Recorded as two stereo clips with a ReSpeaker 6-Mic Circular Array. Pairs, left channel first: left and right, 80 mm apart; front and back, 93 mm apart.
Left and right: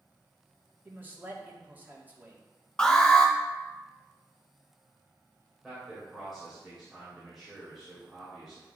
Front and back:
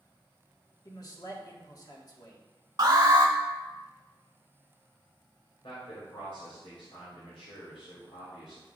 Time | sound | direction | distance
0.8 | a man speaking | 30° right | 1.7 m
2.8 | an alarm | 165° left | 2.0 m
5.6 | a man speaking | 5° right | 2.5 m